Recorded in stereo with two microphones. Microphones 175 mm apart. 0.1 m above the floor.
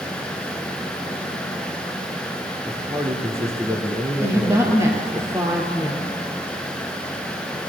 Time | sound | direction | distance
2.7 | a man speaking | 15° right (ahead or behind) | 1.8 m
4.2 | a woman speaking | 15° right (ahead or behind) | 2.5 m